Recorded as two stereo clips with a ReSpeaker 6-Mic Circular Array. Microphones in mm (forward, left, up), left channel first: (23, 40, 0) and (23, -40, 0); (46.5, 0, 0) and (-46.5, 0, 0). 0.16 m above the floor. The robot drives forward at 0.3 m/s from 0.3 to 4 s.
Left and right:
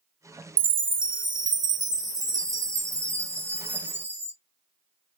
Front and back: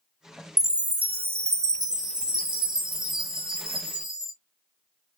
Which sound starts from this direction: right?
A chime, at 0.6 s.